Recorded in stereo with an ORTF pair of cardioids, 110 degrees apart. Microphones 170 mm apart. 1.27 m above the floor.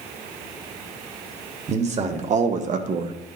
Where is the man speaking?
45° right, 1.7 m; by 3.2 s 65° right, 1.0 m.